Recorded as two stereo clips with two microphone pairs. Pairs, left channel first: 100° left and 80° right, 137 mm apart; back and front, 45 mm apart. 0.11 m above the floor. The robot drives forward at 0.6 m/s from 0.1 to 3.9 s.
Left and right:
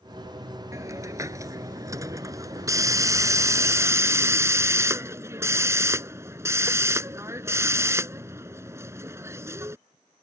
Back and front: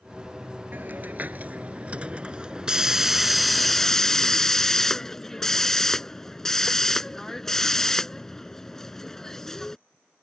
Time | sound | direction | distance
0.7 | a hiss | 20° right | ?